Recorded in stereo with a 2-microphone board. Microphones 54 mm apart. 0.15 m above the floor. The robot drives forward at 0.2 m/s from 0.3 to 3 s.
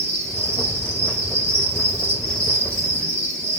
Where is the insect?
60° right (ahead or behind), 1.7 m; by 3.6 s 55° right (ahead or behind), 1.8 m.